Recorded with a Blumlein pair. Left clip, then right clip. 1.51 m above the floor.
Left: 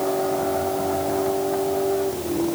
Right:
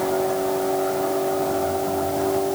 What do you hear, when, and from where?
Only background noise.